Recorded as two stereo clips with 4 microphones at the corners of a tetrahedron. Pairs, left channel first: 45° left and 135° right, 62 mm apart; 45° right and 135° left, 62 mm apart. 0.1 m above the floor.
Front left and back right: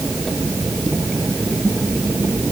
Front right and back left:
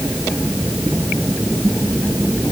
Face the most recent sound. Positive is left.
No sound to turn to.